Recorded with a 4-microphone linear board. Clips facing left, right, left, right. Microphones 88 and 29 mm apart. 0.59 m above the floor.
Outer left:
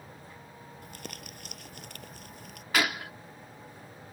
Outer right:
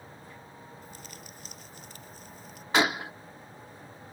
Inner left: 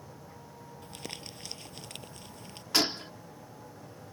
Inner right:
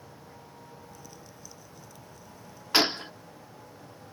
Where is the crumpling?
65° left (ahead or behind).